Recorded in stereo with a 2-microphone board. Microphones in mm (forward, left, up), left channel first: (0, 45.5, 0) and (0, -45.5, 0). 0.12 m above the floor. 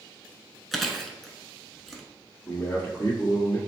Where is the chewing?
5° left (ahead or behind), 0.7 m.